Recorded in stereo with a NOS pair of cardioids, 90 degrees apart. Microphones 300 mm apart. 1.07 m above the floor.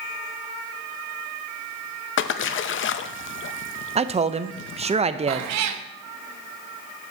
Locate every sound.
2.2 s a splash: 45° left, 0.6 m
4.0 s a man speaking: 20° right, 0.5 m
5.3 s a cat meowing: 65° right, 0.7 m